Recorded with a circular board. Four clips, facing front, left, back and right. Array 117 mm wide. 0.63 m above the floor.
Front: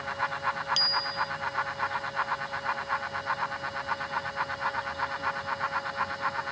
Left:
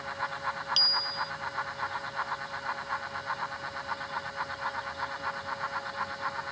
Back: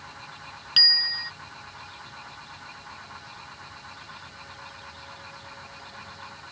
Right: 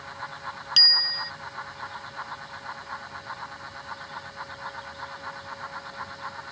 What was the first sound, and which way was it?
A bicycle bell, 150° right.